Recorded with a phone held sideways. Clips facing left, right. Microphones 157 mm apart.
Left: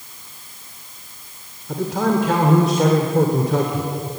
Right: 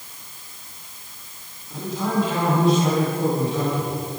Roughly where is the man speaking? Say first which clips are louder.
Left 6 dB; left.